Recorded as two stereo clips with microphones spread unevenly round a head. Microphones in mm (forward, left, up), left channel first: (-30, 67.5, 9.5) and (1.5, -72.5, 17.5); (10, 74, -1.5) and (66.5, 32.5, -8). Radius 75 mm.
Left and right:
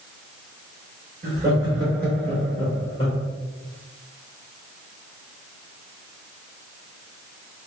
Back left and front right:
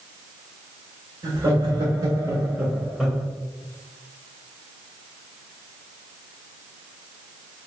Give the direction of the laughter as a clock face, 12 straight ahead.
1 o'clock.